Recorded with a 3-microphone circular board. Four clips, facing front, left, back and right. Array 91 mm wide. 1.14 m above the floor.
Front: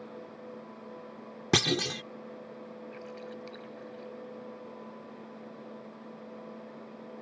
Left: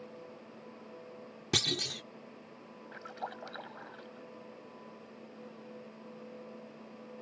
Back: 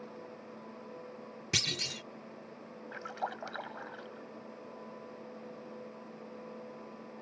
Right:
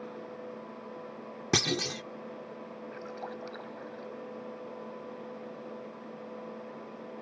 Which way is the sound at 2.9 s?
170° left.